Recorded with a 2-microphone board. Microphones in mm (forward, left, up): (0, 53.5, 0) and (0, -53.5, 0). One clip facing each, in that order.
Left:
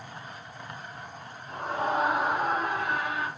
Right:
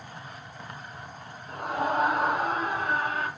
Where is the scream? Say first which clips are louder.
Right 1 dB; 45° right (ahead or behind), 7 m; by 3.3 s 40° right (ahead or behind), 4.5 m.